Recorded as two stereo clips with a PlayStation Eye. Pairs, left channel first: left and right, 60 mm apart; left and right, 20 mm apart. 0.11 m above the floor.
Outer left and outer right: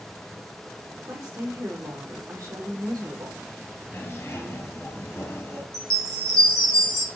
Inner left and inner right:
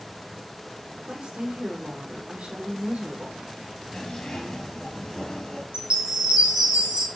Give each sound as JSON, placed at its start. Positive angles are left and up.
{"t": 1.1, "sound": "a woman speaking", "side_deg": -70, "distance_m": 4.5}
{"t": 3.9, "sound": "a zipper", "side_deg": 40, "distance_m": 2.5}
{"t": 5.7, "sound": "a chime", "side_deg": -65, "distance_m": 1.8}